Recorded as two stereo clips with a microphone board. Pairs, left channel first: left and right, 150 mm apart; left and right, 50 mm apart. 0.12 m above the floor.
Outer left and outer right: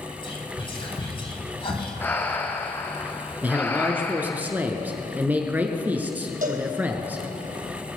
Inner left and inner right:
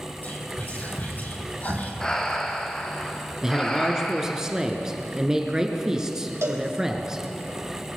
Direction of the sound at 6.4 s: 65° right (ahead or behind).